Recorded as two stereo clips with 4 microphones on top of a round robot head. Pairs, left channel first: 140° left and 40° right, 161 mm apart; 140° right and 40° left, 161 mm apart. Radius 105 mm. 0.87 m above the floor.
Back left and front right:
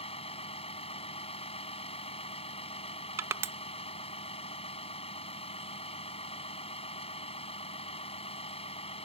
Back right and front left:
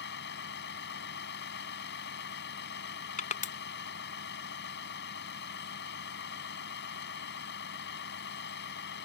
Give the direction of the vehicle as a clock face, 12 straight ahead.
5 o'clock.